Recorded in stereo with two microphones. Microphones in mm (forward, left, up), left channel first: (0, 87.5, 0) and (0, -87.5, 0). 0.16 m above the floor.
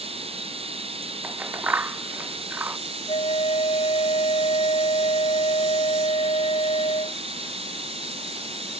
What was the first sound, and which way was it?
Running water, 35° right (ahead or behind).